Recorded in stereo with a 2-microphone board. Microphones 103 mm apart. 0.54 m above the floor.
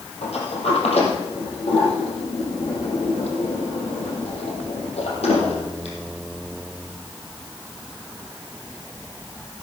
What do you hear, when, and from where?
0.2 s a sliding door: 85° left, 5 m